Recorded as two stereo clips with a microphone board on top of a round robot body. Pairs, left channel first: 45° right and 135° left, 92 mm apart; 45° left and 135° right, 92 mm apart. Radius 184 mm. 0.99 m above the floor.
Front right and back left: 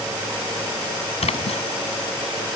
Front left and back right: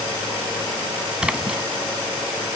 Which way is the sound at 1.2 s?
55° right.